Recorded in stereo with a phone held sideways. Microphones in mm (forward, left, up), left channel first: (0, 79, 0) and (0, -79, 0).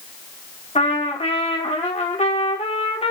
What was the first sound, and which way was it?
A trumpet, 40° left (ahead or behind).